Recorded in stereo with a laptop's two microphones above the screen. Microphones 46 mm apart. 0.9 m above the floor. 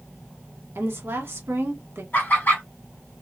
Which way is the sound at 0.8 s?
55° right (ahead or behind).